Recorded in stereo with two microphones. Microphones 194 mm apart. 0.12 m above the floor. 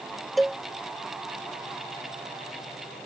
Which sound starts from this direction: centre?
A cowbell, at 0.4 s.